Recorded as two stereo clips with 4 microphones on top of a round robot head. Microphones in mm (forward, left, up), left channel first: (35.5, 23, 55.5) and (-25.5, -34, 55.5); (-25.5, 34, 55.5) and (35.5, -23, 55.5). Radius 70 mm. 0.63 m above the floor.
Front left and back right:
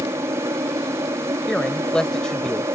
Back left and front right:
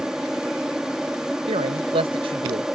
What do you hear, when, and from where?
0.0 s an aircraft: 120° right
1.5 s a man speaking: 40° right